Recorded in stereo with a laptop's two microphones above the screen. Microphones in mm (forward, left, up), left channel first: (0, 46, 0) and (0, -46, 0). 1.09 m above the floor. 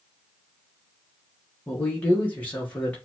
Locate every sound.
1.7 s a man speaking: 15° left (ahead or behind), 1.1 m